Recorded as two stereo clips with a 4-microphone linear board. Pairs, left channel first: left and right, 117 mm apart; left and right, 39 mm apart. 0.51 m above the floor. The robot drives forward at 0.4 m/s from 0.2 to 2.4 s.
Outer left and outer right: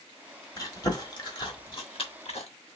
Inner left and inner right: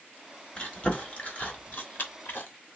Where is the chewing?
35° left (ahead or behind), 1.3 m; by 2.5 s 60° left (ahead or behind), 0.8 m.